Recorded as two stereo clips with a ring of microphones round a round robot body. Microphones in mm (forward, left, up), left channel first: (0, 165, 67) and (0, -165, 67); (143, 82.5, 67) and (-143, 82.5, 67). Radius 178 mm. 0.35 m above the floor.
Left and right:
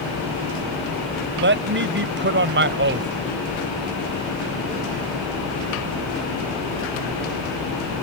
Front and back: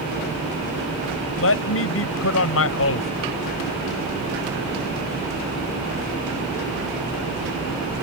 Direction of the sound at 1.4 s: 40° right.